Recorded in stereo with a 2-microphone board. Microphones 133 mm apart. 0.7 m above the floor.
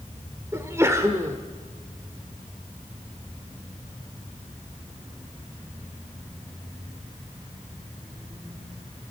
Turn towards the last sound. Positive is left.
turn(degrees=-20)  # may be behind; listen again after turning